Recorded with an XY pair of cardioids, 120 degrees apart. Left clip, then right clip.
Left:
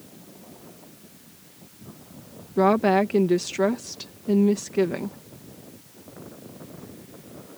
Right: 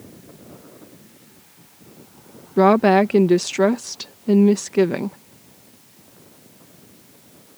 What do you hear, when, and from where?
2.6 s a woman speaking: 30° right